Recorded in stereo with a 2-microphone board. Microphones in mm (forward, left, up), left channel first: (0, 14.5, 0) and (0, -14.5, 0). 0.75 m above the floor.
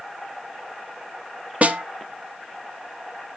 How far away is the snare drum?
About 0.8 m.